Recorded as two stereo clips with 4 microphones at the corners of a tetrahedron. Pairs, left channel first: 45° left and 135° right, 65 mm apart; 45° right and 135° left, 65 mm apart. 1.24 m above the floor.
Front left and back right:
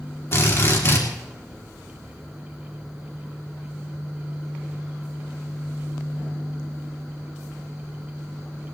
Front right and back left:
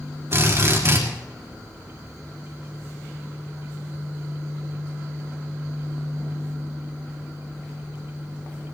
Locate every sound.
0.3 s a drill: 90° left, 3.5 m